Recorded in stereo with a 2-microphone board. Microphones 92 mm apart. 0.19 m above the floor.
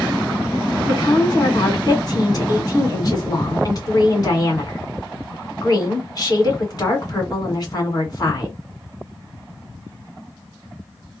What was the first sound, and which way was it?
A woman speaking, 45° left (ahead or behind).